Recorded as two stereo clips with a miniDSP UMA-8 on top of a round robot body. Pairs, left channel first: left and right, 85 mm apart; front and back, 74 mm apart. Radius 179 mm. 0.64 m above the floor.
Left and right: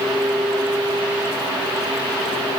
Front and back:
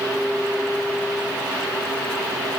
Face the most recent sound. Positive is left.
No sound to turn to.